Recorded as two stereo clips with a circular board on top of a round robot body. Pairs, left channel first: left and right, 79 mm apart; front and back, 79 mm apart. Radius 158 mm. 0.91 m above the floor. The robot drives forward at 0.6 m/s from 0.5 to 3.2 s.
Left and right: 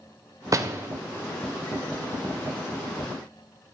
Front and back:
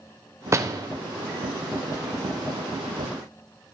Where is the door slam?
130° right, 0.6 m; by 0.9 s 145° right, 0.7 m.